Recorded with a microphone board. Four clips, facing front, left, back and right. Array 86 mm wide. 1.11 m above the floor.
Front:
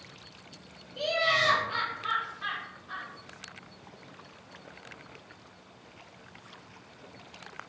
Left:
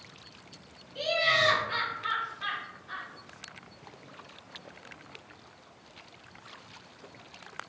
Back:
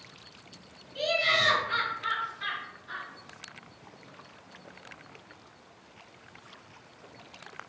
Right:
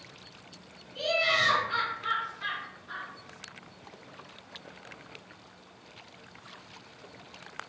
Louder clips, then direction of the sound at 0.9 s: Left 1 dB, even; 170° right.